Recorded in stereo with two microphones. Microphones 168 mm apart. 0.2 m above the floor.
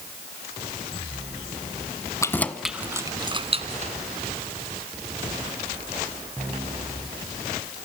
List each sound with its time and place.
2.2 s keys jangling: 20° left (ahead or behind), 1.3 m; by 3.9 s 45° right (ahead or behind), 1.9 m